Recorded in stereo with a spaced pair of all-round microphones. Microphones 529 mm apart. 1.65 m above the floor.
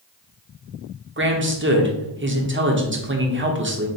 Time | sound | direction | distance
1.2 | a man speaking | 25° right (ahead or behind) | 0.5 m